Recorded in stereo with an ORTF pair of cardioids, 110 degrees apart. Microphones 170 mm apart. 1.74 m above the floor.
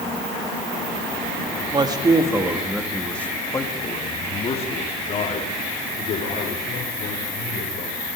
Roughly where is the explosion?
No explosion in this recording.